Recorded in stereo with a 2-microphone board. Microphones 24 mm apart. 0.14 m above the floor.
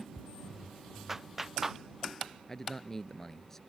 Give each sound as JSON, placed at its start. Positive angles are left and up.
{"t": 1.1, "sound": "a clap", "side_deg": -10}
{"t": 2.5, "sound": "a man speaking", "side_deg": 15}